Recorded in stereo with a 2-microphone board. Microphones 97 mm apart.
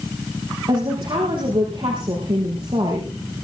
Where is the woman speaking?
60° right (ahead or behind), 5 m.